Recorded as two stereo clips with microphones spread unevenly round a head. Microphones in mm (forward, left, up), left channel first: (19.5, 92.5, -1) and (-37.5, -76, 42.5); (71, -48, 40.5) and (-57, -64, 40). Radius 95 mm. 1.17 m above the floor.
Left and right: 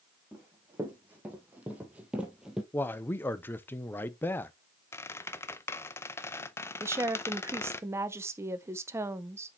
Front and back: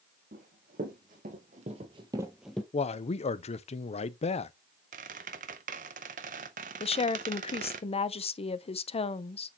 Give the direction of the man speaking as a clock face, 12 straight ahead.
12 o'clock.